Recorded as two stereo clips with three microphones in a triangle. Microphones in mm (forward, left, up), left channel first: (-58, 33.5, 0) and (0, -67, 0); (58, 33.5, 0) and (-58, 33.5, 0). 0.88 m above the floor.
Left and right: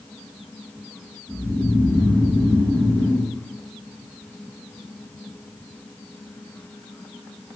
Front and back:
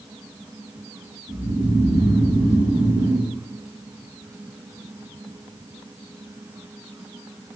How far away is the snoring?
About 7 m.